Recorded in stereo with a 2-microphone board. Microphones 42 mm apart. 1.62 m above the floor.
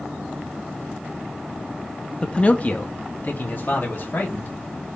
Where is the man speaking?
25° left (ahead or behind), 0.7 m; by 4.5 s 60° left (ahead or behind), 3 m.